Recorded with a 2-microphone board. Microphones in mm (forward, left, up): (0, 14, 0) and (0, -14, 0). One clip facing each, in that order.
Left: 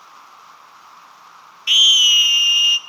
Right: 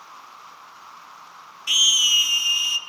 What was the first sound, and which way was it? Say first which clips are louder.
A scream: left 6 dB; 30° left (ahead or behind).